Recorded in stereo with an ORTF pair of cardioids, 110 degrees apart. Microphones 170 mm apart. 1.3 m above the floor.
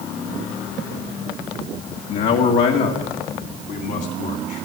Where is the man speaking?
70° left, 1.7 m; by 4.6 s 75° left, 3 m.